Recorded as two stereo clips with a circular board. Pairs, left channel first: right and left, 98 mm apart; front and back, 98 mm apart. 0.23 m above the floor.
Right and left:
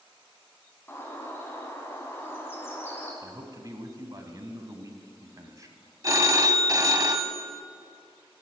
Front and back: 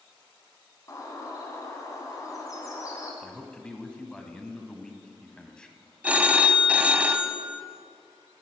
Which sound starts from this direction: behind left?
A phone ringing, at 6.0 s.